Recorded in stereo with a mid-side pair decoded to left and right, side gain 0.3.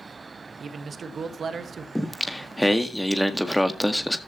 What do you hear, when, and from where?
0.6 s a man speaking: 70° right, 1.7 m
1.9 s singing: 10° right, 1.8 m